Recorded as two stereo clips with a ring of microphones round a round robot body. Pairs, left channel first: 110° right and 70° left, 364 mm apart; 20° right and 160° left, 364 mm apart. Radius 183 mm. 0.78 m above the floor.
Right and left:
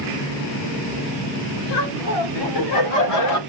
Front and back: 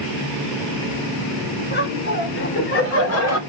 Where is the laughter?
85° right, 4 m; by 3.4 s 65° right, 2.5 m.